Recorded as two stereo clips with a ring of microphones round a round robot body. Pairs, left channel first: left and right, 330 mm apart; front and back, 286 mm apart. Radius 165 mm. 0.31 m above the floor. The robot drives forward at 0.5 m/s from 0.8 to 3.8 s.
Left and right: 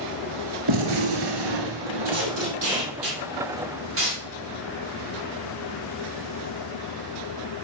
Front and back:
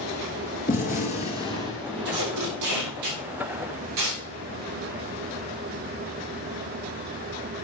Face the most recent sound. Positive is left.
turn(degrees=-145)